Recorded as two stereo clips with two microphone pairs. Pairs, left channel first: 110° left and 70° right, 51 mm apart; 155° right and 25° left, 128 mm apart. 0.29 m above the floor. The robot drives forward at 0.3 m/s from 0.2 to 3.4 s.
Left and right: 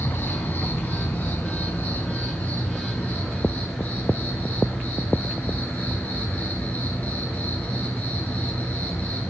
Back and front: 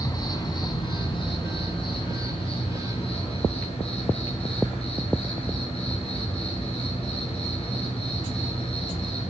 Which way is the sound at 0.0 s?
150° left.